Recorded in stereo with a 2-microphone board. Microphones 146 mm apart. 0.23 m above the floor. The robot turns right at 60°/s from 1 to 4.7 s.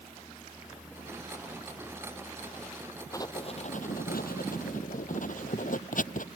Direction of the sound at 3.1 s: 20° left (ahead or behind).